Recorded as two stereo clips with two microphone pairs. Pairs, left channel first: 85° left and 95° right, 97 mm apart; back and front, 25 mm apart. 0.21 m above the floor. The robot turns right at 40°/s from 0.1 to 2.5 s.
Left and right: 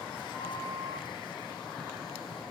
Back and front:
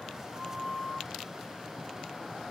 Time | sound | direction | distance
0.3 | a flute | 130° right | 3.5 m